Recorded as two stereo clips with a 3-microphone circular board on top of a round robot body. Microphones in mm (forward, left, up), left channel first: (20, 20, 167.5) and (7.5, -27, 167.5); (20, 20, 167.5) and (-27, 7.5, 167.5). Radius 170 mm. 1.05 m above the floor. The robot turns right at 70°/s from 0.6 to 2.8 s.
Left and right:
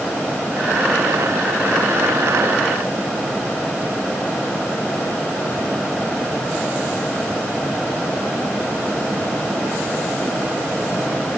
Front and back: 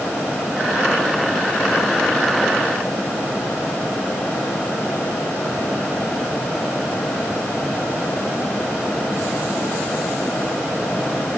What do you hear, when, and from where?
Only background noise.